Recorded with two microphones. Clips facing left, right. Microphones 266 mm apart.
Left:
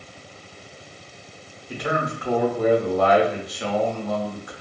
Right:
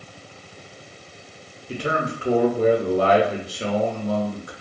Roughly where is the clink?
I don't hear a clink.